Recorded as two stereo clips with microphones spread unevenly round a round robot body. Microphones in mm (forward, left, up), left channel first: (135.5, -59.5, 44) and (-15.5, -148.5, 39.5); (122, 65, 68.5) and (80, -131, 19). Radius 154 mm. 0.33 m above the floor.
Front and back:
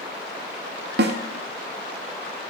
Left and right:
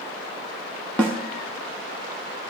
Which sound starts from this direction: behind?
A snare drum, at 1.0 s.